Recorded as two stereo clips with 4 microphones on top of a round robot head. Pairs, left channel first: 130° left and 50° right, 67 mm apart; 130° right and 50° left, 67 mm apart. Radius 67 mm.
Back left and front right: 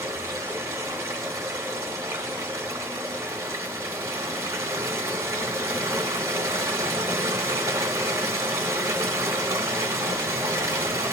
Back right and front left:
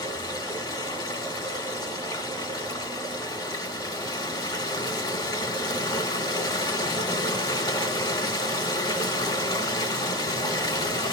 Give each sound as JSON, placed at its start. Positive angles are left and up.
{"t": 0.0, "sound": "running water", "azimuth_deg": -105, "distance_m": 2.0}